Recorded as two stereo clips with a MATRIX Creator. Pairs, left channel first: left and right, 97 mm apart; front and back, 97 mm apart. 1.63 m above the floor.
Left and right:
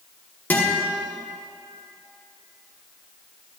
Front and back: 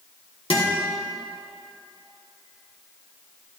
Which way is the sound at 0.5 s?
20° left.